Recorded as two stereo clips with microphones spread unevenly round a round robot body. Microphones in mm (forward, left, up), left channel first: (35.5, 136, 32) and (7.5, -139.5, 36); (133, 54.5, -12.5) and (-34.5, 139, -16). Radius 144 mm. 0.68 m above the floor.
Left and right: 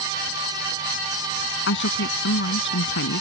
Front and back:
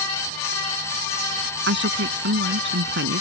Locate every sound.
1.7 s a woman speaking: 135° left